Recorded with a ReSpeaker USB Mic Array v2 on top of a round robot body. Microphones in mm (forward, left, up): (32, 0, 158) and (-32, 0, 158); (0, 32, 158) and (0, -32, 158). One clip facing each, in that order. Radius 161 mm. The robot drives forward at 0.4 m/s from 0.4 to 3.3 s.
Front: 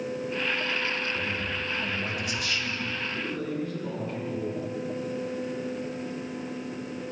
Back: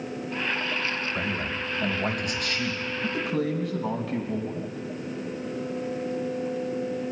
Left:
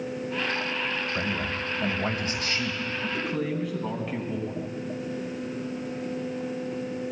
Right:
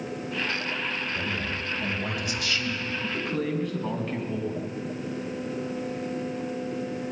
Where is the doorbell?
No doorbell in this recording.